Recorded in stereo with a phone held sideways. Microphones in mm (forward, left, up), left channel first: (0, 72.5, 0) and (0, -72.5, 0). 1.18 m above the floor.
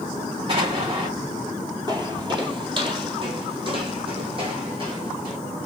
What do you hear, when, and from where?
0.5 s an explosion: 40° right (ahead or behind), 2 m
1.9 s footsteps: 30° right (ahead or behind), 1.3 m; by 5.4 s 35° right (ahead or behind), 3 m